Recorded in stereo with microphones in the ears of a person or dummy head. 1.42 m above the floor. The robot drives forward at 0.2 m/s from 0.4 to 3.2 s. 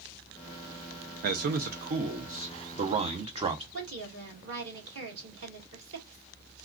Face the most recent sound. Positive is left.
turn(degrees=-65)  # may be behind; listen again after turning